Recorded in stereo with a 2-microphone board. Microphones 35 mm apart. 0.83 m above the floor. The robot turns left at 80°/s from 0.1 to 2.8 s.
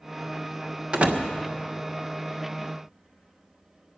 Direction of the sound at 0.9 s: 30° right (ahead or behind).